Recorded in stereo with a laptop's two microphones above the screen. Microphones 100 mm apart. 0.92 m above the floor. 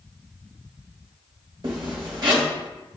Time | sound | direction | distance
1.6 | a zipper | 50° right (ahead or behind) | 1.0 m